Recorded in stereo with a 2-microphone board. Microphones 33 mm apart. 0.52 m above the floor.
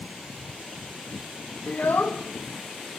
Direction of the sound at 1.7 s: 55° left (ahead or behind).